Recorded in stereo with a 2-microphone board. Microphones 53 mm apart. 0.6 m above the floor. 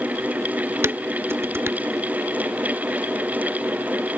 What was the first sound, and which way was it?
Dishes clattering, 55° right (ahead or behind).